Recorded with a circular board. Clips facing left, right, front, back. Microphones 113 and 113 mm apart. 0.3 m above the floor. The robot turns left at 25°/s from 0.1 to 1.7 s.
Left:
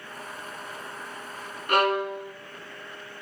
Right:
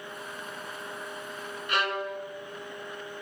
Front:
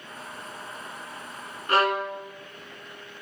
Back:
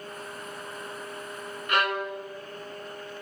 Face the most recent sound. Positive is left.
turn(degrees=50)